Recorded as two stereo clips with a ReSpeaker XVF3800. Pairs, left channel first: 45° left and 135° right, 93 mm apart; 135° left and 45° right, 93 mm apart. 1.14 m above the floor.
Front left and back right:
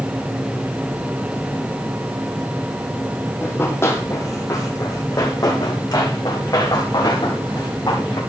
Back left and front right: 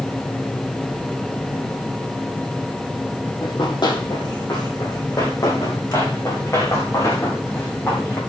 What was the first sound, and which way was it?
Running footsteps, 110° left.